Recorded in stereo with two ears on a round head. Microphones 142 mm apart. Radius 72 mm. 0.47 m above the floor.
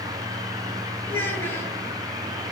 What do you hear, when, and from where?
1.1 s a child speaking: 15° left (ahead or behind), 6.5 m